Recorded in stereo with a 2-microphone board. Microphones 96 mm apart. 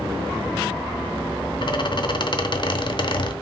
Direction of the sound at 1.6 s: 50° left (ahead or behind).